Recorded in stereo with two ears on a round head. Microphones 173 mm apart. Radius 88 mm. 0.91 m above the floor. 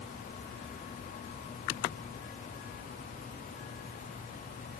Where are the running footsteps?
No running footsteps in this recording.